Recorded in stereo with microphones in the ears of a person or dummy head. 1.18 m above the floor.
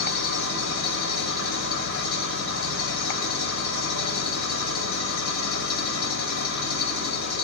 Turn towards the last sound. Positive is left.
turn(degrees=80)